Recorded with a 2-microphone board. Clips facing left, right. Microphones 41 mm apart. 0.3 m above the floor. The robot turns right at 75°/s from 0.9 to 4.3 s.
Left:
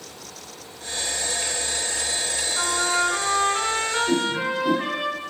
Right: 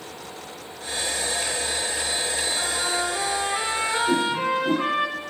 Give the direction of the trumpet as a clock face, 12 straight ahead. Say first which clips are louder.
Left 7 dB; 9 o'clock.